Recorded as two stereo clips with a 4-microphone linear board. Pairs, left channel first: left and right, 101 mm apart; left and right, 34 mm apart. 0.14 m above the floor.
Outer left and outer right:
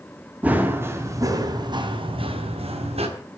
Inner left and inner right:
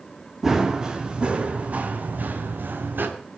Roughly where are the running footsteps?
Centre.